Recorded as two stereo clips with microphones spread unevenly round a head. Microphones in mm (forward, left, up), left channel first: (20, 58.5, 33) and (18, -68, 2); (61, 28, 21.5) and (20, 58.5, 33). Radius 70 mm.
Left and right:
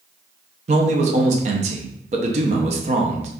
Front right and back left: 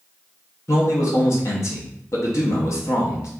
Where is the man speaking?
65° right, 0.5 m.